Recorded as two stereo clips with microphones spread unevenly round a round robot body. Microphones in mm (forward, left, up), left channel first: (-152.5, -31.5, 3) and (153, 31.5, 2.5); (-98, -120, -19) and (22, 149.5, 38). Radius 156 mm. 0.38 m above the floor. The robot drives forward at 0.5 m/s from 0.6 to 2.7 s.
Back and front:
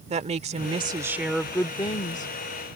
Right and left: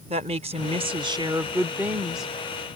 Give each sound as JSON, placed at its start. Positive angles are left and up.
{"t": 0.1, "sound": "a woman speaking", "azimuth_deg": 0}